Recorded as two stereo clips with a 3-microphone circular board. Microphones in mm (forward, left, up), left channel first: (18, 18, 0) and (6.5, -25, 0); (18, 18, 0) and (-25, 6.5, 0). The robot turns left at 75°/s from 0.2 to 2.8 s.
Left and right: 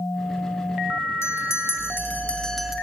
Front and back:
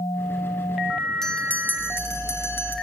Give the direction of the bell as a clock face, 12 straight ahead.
9 o'clock.